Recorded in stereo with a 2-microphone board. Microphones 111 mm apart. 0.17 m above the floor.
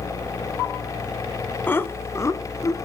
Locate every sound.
1.7 s laughter: 20° left (ahead or behind), 1.1 m; by 2.9 s 30° left (ahead or behind), 1.9 m